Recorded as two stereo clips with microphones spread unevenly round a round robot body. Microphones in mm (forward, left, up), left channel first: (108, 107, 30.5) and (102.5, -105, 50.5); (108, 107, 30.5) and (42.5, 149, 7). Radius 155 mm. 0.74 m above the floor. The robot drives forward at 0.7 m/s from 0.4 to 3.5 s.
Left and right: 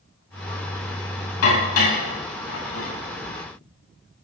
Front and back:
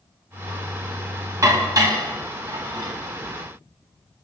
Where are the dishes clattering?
100° left, 3.5 m; by 2.9 s 115° left, 4 m.